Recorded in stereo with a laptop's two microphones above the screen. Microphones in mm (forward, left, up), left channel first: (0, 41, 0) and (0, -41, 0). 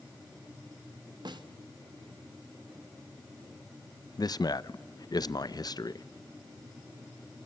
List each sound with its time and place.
1.2 s a snare drum: 65° right (ahead or behind), 1.3 m
4.2 s a man speaking: 55° left (ahead or behind), 0.6 m